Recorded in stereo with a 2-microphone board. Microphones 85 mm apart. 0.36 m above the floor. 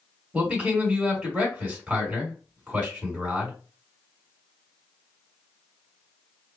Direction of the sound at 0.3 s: 15° right (ahead or behind).